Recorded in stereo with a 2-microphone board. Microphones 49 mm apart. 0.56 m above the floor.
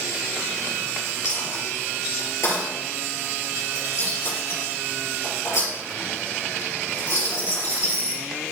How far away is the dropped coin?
About 4 m.